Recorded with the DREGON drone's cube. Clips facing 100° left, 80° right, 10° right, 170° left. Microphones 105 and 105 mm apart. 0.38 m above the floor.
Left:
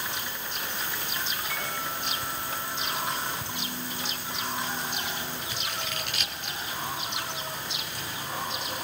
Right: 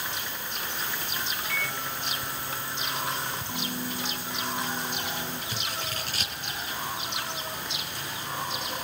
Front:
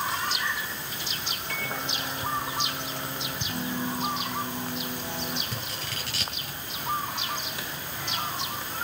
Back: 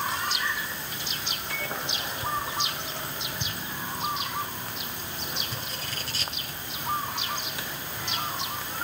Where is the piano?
5° right, 0.7 m.